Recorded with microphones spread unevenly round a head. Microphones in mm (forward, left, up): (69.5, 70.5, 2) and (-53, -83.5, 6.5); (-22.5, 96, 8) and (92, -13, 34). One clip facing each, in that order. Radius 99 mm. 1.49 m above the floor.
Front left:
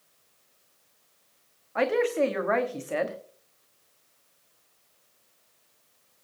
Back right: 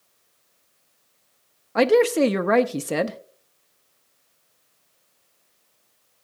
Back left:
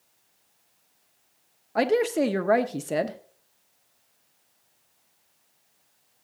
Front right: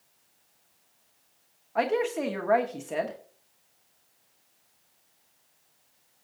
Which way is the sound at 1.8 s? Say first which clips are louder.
Back right 7 dB, back left 4 dB; 170° right.